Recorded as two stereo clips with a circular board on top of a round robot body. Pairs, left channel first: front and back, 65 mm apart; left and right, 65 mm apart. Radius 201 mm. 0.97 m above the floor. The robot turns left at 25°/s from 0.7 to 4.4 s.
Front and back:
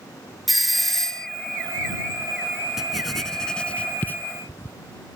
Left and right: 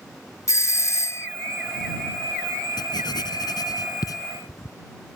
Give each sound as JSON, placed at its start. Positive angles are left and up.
{"t": 0.5, "sound": "a doorbell", "azimuth_deg": 90}
{"t": 2.8, "sound": "writing", "azimuth_deg": 95}